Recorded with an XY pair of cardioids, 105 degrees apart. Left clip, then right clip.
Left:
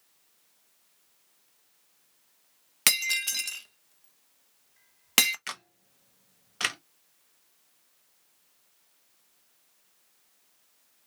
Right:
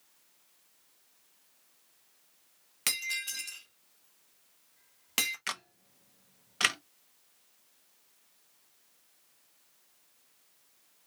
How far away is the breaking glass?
About 0.9 m.